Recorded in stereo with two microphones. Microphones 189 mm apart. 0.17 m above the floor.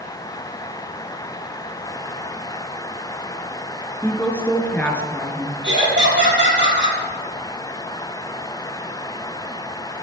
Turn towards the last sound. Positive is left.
turn(degrees=-75)  # may be behind; listen again after turning